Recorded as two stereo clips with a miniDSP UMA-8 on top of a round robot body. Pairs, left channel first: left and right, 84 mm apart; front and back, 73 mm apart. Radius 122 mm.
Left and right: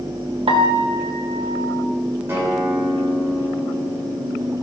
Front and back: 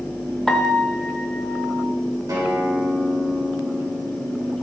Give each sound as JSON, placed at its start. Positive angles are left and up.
{"t": 0.5, "sound": "a piano", "azimuth_deg": -85, "distance_m": 0.9}
{"t": 2.3, "sound": "a guitar", "azimuth_deg": -150, "distance_m": 3.0}